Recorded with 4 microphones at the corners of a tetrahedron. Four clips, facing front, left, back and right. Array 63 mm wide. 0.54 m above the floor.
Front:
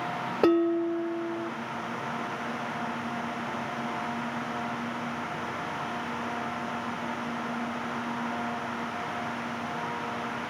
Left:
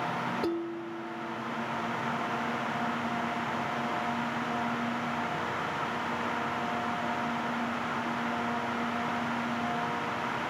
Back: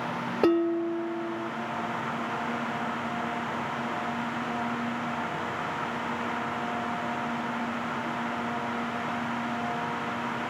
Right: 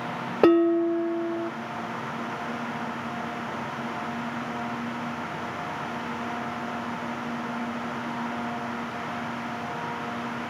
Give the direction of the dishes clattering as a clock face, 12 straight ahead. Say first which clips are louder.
Right 14 dB, front 1 dB; 3 o'clock.